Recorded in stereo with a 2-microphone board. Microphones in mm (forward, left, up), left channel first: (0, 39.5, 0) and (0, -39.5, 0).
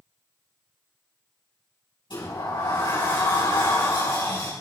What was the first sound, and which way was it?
A sliding door, 85° left.